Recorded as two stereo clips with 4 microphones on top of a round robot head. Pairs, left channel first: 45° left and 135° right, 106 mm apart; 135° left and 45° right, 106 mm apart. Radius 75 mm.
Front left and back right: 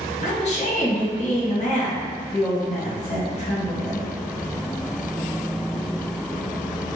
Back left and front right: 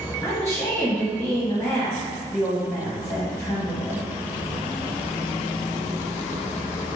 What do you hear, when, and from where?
0.2 s a woman speaking: 70° left, 1.3 m